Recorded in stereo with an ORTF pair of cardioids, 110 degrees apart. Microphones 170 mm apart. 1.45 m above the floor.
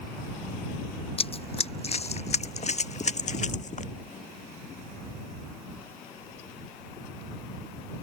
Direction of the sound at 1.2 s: 35° left.